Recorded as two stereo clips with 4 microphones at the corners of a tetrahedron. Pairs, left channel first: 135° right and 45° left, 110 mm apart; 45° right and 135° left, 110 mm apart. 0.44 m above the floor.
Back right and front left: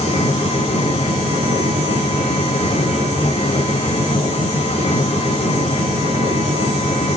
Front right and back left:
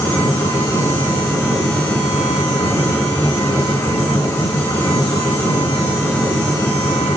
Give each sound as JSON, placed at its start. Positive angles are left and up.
{"t": 0.0, "sound": "an engine running", "azimuth_deg": -110, "distance_m": 4.5}